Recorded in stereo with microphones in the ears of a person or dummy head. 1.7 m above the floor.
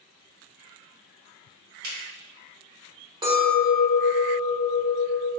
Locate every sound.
1.8 s a finger snap: 55° right (ahead or behind), 1.0 m
3.2 s a clink: 30° right (ahead or behind), 1.1 m